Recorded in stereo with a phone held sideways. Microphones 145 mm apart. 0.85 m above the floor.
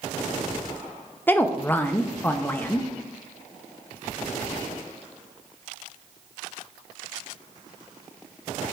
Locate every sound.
1.3 s a woman speaking: 15° left (ahead or behind), 0.5 m